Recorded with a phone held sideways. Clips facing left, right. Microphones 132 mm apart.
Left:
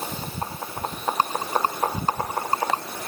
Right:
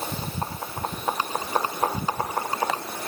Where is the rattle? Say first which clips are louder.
Left 5 dB; 45° left (ahead or behind).